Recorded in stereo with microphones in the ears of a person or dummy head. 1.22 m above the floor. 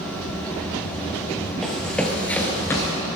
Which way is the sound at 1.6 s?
5° left (ahead or behind).